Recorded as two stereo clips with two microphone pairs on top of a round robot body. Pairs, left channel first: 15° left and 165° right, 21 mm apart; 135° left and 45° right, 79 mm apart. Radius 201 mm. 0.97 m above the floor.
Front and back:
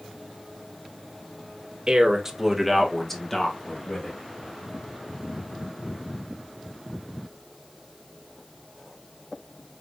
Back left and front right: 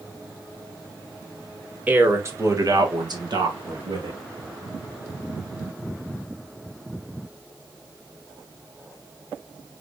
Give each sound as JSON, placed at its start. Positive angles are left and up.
{"t": 1.9, "sound": "a man speaking", "azimuth_deg": -115, "distance_m": 1.6}